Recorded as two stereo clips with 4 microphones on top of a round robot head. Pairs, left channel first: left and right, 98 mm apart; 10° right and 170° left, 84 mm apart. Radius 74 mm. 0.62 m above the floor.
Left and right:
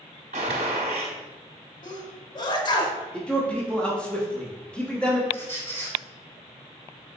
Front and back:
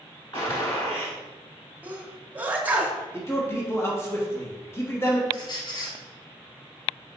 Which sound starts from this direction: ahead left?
A squeak, at 5.3 s.